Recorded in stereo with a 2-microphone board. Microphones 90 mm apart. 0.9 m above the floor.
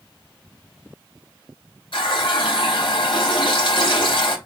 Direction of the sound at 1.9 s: 65° left (ahead or behind).